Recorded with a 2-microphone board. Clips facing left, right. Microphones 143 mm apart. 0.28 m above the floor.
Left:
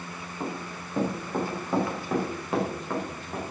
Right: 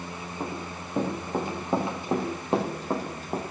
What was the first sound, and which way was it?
Running footsteps, 10° right (ahead or behind).